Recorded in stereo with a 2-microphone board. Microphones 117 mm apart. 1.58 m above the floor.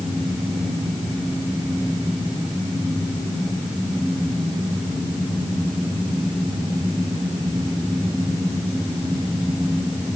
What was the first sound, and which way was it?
Only background noise.